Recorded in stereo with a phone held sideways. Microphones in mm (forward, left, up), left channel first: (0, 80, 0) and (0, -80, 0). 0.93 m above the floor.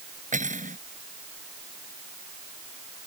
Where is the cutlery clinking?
55° right (ahead or behind).